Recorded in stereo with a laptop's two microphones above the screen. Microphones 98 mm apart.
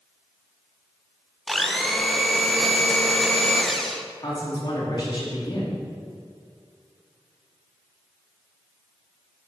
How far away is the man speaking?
About 2.5 m.